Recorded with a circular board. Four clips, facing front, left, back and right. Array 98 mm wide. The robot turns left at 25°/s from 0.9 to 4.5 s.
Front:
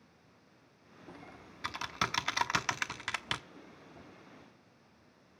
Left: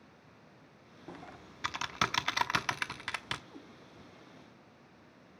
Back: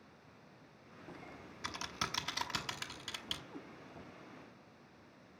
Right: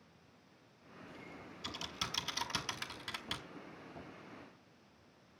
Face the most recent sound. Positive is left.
turn(degrees=130)